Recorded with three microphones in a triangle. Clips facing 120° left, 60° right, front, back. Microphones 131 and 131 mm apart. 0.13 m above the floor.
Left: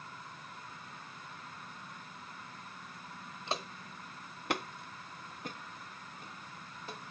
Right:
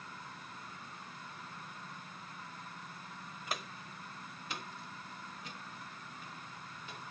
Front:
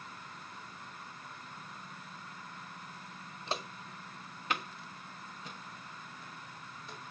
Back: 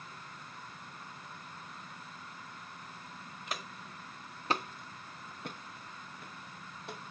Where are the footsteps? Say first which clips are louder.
Left 4 dB, front 4 dB; 55° left, 0.9 m; by 7.1 s 170° left, 3 m.